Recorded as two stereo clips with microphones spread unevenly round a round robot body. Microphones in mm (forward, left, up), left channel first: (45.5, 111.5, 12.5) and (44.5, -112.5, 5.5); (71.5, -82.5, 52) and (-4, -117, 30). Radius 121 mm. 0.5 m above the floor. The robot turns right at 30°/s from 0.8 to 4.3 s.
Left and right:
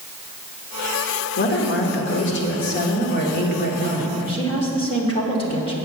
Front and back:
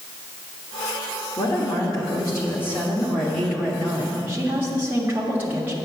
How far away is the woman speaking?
About 1.4 m.